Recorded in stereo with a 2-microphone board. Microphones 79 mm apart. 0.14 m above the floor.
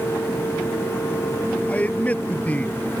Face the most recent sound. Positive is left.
turn(degrees=20)  # may be behind; listen again after turning